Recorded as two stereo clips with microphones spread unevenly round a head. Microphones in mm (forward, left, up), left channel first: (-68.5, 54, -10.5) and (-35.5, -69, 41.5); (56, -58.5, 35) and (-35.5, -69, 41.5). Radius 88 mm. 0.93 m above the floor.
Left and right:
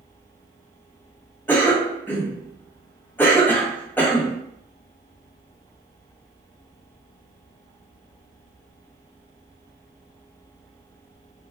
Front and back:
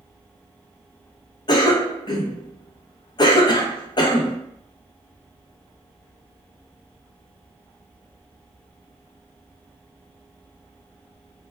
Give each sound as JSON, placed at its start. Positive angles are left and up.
{"t": 1.5, "sound": "a cough", "azimuth_deg": 40, "distance_m": 0.5}